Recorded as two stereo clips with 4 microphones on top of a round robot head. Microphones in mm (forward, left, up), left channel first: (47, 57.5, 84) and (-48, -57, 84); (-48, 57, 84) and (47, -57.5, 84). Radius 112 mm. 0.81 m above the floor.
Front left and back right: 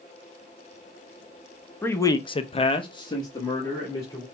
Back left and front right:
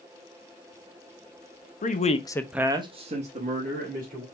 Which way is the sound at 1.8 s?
125° left.